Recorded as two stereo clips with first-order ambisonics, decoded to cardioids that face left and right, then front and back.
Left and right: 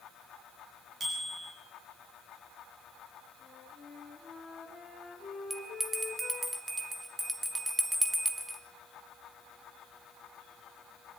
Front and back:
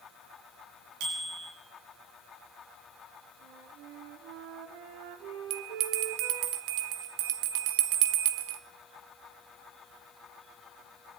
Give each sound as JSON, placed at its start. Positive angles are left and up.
{"t": 1.0, "sound": "a bicycle bell", "azimuth_deg": -160, "distance_m": 9.5}
{"t": 3.4, "sound": "a flute", "azimuth_deg": 170, "distance_m": 4.5}
{"t": 5.5, "sound": "a bell", "azimuth_deg": -170, "distance_m": 1.6}